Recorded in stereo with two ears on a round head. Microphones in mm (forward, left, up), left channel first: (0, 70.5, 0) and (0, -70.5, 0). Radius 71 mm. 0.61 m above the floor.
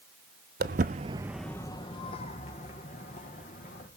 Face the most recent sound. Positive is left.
turn(degrees=50)  # may be behind; listen again after turning